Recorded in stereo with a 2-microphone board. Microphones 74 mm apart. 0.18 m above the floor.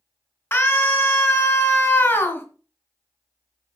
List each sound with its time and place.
0.5 s a scream: 35° left (ahead or behind), 2 m